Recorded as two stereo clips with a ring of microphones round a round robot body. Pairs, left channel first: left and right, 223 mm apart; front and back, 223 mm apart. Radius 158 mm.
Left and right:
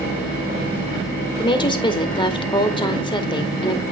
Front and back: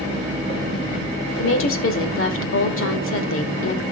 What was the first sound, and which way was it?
A woman speaking, 20° left.